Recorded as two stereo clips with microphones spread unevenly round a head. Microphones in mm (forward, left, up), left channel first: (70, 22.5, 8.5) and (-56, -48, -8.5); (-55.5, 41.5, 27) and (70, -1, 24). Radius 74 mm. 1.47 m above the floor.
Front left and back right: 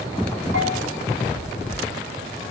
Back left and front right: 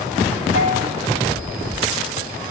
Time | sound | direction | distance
0.5 | a bell | 145° right | 5.5 m